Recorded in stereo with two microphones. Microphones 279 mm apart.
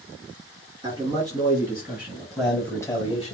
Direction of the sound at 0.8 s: 15° right (ahead or behind).